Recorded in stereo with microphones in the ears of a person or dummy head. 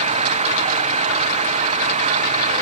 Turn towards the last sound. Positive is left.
turn(degrees=-35)  # may be behind; listen again after turning